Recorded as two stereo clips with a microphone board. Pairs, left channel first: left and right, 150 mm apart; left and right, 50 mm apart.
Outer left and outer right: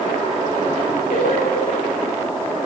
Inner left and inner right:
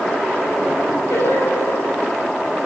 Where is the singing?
80° left, 9 m.